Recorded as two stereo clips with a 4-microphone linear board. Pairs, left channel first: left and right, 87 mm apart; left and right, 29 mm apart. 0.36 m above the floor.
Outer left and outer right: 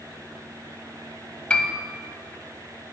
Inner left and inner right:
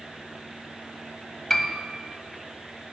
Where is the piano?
10° left (ahead or behind), 0.6 m.